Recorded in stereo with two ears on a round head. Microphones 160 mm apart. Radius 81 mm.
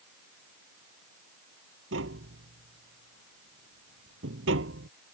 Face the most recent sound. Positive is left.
turn(degrees=-75)  # may be behind; listen again after turning